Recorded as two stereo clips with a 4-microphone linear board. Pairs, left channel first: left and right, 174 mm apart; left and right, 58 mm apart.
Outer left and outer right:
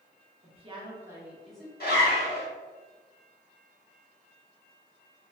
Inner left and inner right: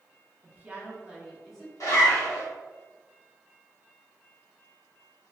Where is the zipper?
55° left (ahead or behind), 1.4 m.